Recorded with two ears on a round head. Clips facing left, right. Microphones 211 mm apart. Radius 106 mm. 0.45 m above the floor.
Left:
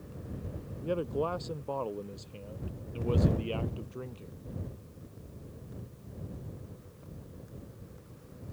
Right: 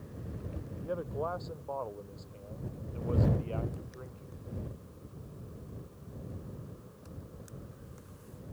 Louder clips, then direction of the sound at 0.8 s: Left 5 dB; 40° left (ahead or behind).